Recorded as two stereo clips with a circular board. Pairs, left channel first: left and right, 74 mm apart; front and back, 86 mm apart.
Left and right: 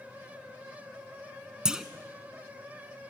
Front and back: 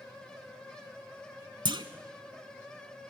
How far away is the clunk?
About 0.8 m.